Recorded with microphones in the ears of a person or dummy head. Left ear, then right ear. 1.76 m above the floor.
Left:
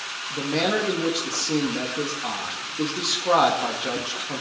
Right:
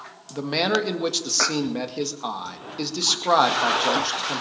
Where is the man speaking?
60° right (ahead or behind), 1.9 m.